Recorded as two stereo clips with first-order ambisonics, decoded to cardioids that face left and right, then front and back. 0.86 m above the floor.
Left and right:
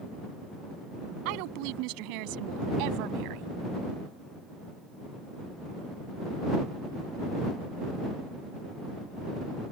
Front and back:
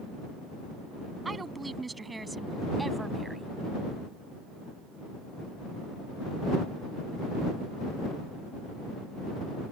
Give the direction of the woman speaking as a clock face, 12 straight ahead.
3 o'clock.